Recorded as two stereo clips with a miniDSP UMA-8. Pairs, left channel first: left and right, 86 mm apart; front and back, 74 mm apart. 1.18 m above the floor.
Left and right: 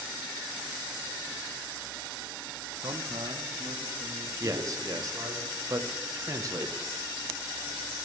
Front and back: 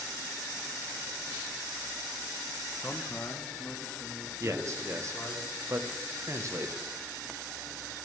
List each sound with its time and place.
2.8 s a man speaking: 70° right, 0.6 m; by 5.4 s 65° right, 2.5 m
4.4 s a man speaking: 135° right, 0.8 m